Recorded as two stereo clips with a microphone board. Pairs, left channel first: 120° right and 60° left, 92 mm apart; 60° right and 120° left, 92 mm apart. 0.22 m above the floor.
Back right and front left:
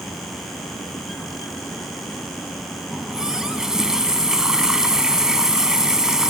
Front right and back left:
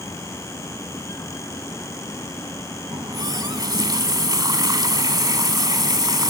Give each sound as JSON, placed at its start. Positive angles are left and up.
{"t": 2.9, "sound": "a running tap", "azimuth_deg": 140, "distance_m": 1.1}